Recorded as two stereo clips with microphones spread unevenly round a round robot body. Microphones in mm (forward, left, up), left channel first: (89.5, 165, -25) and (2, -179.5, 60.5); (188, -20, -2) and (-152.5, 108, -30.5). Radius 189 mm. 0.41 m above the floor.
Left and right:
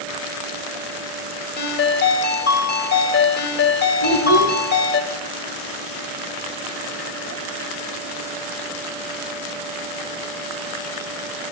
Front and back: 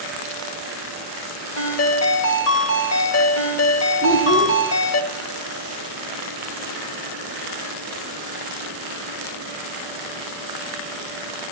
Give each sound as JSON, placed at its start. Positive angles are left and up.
{"t": 1.6, "sound": "a ringtone", "azimuth_deg": 25, "distance_m": 1.5}
{"t": 4.0, "sound": "a child speaking", "azimuth_deg": -100, "distance_m": 2.0}